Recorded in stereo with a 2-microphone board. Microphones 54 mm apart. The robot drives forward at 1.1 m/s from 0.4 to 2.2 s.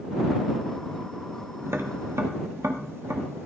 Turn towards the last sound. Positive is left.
turn(degrees=-55)  # may be behind; listen again after turning